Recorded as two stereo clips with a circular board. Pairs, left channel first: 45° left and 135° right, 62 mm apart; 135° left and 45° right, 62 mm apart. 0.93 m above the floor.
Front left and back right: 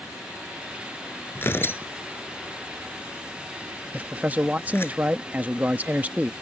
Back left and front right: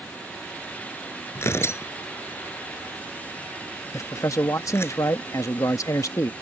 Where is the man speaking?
165° left.